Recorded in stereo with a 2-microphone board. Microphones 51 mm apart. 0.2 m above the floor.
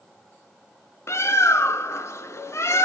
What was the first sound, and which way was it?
A bird, 65° left (ahead or behind).